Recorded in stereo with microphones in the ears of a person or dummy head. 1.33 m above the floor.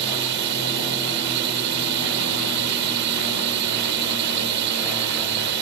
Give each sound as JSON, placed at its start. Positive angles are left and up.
{"t": 0.0, "sound": "a drone", "side_deg": -60}